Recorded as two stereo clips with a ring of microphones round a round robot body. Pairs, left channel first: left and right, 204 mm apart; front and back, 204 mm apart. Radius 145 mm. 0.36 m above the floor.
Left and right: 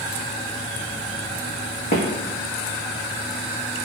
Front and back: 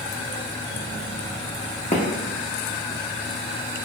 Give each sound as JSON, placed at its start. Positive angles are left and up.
{"t": 1.9, "sound": "footsteps", "azimuth_deg": 55, "distance_m": 0.8}